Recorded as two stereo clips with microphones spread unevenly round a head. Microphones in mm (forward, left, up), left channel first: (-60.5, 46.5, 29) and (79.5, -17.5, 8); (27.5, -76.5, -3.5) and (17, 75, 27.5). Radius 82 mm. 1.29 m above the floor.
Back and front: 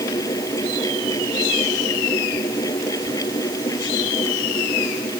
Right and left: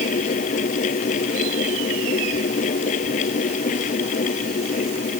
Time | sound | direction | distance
0.0 | a fan | 135° right | ?